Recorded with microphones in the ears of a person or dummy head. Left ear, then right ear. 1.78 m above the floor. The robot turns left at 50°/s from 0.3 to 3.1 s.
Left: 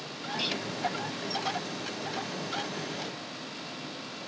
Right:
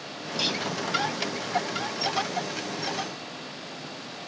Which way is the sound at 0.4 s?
20° right (ahead or behind).